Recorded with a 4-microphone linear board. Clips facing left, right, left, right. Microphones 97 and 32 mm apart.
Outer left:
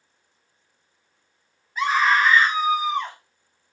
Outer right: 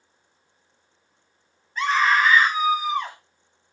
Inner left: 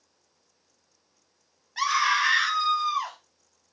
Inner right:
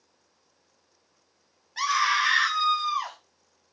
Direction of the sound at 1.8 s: 10° left (ahead or behind).